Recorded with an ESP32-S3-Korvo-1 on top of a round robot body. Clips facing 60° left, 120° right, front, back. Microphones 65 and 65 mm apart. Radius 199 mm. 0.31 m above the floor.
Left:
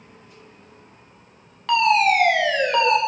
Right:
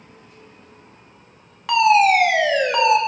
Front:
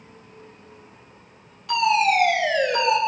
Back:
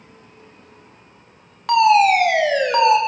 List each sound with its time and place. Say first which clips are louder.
1.7 s a fire alarm: right 3 dB, back 7 dB; 160° left, 7 m